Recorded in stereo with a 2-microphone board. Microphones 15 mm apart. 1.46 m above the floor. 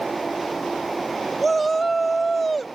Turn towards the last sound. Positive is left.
turn(degrees=10)  # may be behind; listen again after turning